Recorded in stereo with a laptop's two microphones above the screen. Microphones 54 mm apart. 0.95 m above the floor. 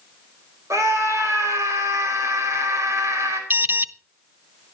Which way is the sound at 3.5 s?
40° right (ahead or behind).